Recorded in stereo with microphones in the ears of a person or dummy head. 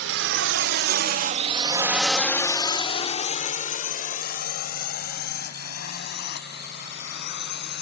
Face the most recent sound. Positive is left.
turn(degrees=60)  # may be behind; listen again after turning